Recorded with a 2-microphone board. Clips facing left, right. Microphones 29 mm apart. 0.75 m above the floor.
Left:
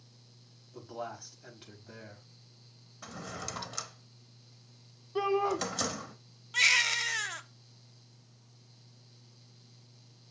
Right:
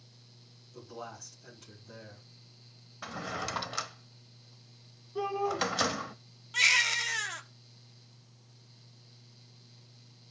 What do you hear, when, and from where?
0.7 s a man speaking: 40° left (ahead or behind), 5 m
3.0 s a drawer: 30° right (ahead or behind), 0.7 m
5.2 s a shout: 50° left (ahead or behind), 2 m
6.5 s a baby crying: centre (ahead or behind), 0.9 m